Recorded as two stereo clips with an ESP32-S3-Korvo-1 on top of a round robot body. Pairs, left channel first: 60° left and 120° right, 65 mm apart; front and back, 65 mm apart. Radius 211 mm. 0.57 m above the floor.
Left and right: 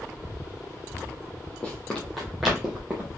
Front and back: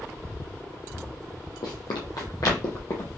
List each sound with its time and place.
1.6 s running footsteps: 10° right, 1.4 m; by 3.1 s 45° right, 1.8 m